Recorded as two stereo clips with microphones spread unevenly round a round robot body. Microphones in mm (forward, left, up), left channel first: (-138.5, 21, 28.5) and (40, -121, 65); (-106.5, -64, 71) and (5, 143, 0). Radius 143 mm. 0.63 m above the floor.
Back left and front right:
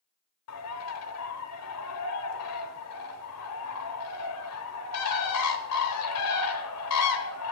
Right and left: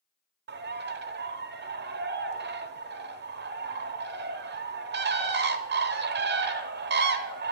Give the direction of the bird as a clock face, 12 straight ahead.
8 o'clock.